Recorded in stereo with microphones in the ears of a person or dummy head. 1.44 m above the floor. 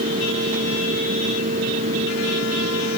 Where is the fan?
40° right (ahead or behind).